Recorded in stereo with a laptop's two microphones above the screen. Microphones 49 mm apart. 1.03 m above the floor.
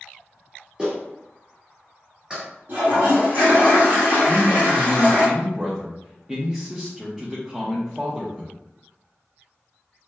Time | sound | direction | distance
0.8 | a clap | 20° right (ahead or behind) | 1.3 m
2.7 | a toilet flushing | 45° right (ahead or behind) | 1.9 m
4.3 | a man speaking | 15° right (ahead or behind) | 0.8 m